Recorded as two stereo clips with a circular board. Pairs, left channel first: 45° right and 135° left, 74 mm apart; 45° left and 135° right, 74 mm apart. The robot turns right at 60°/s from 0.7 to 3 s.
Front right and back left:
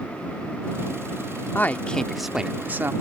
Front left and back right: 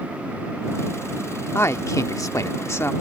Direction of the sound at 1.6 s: 5° left.